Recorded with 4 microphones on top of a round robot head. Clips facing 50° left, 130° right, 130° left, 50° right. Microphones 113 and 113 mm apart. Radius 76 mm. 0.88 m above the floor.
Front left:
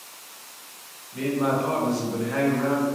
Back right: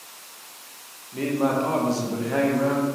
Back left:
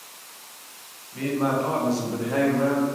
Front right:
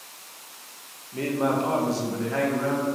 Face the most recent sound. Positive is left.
turn(degrees=165)